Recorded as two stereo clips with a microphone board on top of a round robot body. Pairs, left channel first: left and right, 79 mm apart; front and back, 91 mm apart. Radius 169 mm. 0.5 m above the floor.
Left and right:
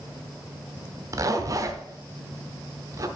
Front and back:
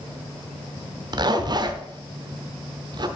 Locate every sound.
1.1 s a zipper: 140° right, 1.0 m